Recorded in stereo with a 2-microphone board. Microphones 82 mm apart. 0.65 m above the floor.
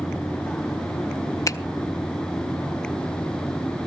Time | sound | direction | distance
1.5 | a finger snap | 40° left (ahead or behind) | 0.5 m